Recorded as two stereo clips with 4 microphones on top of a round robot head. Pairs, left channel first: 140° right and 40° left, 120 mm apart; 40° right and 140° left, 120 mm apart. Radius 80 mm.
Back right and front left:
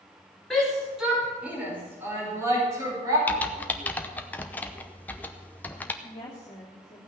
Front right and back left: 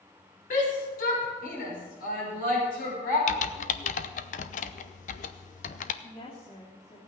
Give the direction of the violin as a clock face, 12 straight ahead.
I don't hear a violin.